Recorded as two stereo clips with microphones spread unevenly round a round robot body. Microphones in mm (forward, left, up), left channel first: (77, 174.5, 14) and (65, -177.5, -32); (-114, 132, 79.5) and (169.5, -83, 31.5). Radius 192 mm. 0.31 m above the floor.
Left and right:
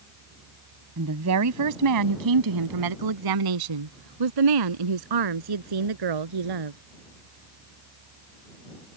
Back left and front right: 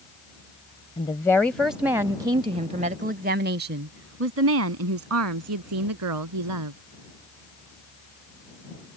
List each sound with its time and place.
1.0 s a woman speaking: 135° right; by 6.8 s 80° right